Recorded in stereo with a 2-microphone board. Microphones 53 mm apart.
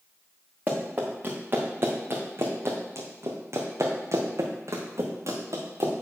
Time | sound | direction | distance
0.7 | running footsteps | 35° right (ahead or behind) | 2.5 m